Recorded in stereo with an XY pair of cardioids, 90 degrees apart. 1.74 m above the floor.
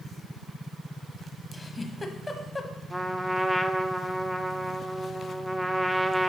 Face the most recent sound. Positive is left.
turn(degrees=0)